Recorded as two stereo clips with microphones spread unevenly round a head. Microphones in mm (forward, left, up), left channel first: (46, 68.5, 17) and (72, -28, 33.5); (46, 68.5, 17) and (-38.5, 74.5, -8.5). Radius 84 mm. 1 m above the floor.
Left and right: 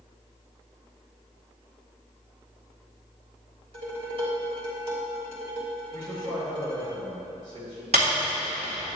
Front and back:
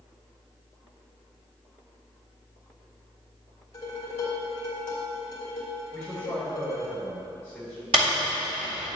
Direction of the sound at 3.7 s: 55° right.